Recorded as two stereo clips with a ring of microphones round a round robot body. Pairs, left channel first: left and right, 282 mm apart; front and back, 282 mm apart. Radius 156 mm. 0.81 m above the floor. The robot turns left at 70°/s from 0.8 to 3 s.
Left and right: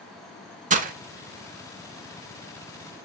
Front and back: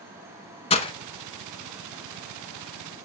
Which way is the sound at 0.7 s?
50° right.